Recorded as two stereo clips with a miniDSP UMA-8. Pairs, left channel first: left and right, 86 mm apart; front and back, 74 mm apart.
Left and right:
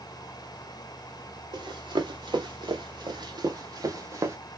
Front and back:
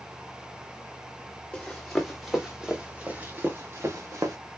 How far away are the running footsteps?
About 1.6 m.